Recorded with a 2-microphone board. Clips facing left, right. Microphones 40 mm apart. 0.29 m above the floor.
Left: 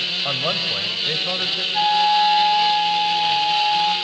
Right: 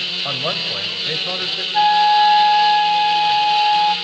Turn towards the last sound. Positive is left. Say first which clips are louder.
# right 4 dB
turn(degrees=-25)  # may be behind; listen again after turning